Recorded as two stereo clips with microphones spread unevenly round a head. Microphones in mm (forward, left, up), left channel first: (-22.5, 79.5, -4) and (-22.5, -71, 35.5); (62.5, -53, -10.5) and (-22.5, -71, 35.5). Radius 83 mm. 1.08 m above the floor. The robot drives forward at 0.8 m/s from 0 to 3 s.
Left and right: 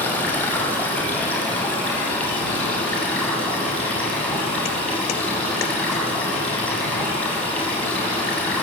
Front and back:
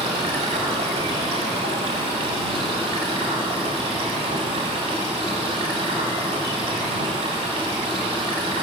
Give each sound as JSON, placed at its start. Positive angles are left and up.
{"t": 0.0, "sound": "running water", "azimuth_deg": 170, "distance_m": 6.0}